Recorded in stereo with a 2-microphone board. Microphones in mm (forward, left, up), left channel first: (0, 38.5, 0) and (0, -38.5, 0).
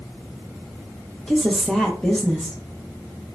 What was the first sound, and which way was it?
A woman speaking, centre (ahead or behind).